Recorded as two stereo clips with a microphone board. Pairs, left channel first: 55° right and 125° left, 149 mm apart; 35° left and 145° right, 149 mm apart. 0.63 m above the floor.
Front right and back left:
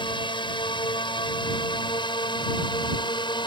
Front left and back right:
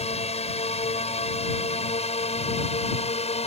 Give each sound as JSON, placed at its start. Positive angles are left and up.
{"t": 0.0, "sound": "a drone", "azimuth_deg": 0}